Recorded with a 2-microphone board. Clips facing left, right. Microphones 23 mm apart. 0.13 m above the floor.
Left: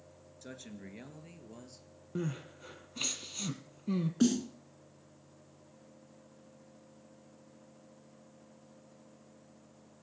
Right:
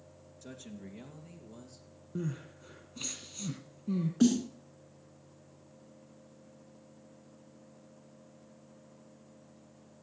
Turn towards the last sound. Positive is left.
turn(degrees=10)  # may be behind; listen again after turning